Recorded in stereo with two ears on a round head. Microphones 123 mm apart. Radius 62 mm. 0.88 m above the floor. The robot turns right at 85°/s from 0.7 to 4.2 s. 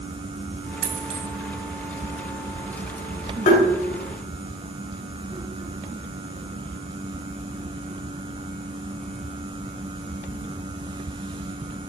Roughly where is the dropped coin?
Right.